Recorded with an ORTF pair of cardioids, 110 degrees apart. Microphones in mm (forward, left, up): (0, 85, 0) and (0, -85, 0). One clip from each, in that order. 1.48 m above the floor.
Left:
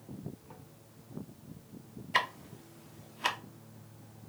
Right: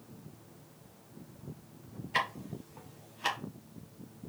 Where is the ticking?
15° left, 1.0 m.